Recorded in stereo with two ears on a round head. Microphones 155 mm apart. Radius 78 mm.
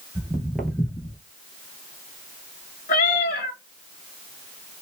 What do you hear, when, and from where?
0.1 s footsteps: 15° right (ahead or behind), 1.2 m; by 1.2 s 25° left (ahead or behind), 0.7 m
2.9 s a cat meowing: 50° left (ahead or behind), 0.9 m